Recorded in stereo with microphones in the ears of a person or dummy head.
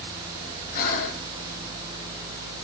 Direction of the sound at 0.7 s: 55° left (ahead or behind).